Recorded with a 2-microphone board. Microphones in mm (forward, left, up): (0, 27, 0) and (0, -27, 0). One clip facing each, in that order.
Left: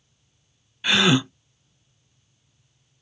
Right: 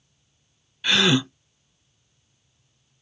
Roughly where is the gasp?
Centre.